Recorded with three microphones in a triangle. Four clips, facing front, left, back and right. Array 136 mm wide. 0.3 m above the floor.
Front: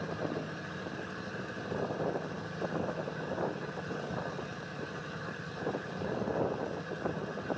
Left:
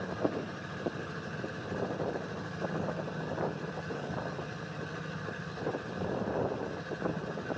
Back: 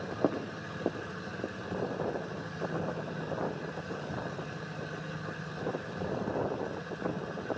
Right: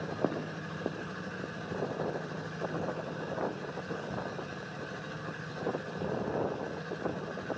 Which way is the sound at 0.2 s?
150° right.